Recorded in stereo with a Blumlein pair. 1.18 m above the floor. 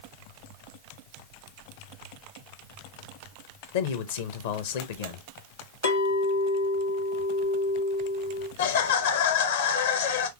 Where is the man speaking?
55° left, 0.8 m.